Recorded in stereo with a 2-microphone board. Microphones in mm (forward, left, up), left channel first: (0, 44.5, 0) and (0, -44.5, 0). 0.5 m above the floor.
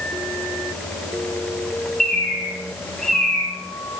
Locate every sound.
2.0 s a bird: 5° left (ahead or behind), 2 m